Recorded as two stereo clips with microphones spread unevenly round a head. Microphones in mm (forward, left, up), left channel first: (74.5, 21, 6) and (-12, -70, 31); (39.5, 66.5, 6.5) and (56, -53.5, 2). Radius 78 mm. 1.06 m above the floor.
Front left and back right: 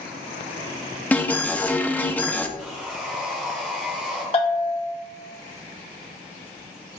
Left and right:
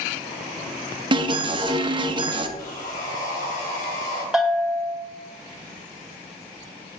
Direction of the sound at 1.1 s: 30° right.